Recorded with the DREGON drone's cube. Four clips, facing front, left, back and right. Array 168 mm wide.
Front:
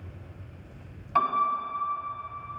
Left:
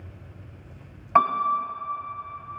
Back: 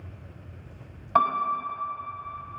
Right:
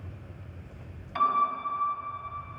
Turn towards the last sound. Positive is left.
turn(degrees=120)